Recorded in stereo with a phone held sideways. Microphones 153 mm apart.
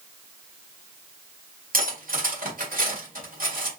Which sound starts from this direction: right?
Cutlery clinking, at 1.7 s.